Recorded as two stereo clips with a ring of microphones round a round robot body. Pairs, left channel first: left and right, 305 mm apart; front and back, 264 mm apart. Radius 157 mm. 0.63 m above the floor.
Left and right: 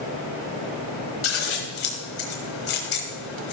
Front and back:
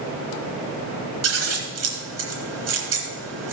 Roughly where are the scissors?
Behind left.